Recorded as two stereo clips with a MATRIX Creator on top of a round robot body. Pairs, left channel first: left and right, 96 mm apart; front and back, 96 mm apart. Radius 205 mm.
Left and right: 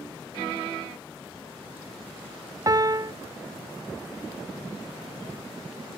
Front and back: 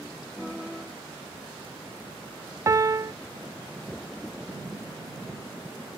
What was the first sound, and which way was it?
A piano, 130° right.